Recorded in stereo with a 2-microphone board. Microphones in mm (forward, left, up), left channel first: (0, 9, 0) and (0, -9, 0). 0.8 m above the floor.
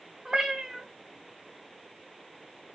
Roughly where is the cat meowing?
Right.